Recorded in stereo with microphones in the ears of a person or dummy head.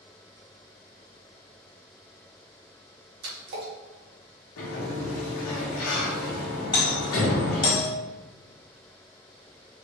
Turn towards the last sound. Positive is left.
turn(degrees=30)  # may be behind; listen again after turning